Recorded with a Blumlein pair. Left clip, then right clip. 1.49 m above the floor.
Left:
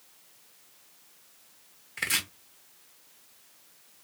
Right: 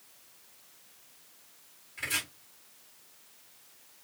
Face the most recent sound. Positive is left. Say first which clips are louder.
# left 4 dB
turn(degrees=45)